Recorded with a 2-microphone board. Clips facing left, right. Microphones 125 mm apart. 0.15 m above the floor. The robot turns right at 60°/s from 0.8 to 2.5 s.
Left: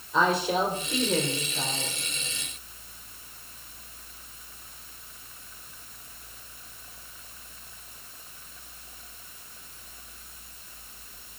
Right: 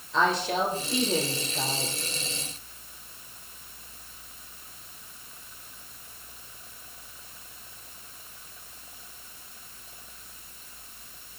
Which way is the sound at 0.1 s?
170° left.